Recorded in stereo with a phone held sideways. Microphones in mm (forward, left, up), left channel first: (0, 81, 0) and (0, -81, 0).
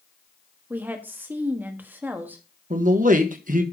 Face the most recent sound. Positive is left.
turn(degrees=-55)  # may be behind; listen again after turning